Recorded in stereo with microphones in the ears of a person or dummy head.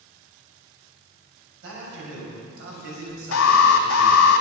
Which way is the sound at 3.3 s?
80° left.